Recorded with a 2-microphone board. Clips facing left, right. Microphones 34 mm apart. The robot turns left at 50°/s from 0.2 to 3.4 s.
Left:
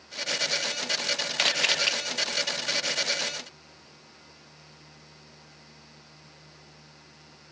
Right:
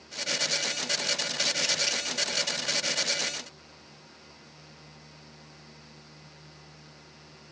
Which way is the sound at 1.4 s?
65° left (ahead or behind).